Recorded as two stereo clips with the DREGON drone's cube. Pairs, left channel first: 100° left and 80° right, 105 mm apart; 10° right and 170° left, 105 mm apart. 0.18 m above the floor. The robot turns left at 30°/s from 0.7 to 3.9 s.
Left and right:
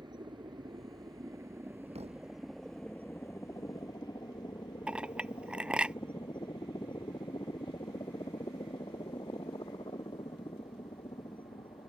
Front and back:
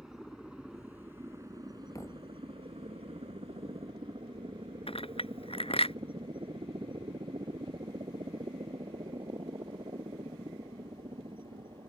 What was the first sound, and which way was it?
A helicopter, 105° right.